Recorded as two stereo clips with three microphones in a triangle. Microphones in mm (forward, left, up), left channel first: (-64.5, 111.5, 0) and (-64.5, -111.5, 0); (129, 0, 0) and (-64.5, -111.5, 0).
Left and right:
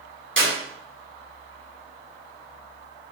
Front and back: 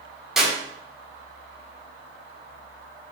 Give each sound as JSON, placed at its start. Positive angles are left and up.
{"t": 0.4, "sound": "a clap", "azimuth_deg": -60, "distance_m": 7.0}